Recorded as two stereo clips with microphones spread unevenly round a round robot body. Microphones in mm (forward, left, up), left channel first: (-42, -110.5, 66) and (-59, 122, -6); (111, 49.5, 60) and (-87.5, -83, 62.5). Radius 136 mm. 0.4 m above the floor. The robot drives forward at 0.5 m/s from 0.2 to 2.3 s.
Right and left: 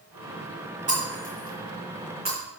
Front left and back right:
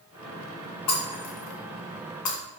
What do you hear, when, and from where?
0.9 s breaking glass: 25° left, 3.5 m; by 2.4 s 30° left, 2.5 m